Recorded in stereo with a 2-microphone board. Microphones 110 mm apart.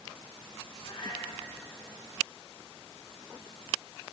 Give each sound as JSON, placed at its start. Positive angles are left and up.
{"t": 0.8, "sound": "a cat meowing", "side_deg": 55, "distance_m": 1.5}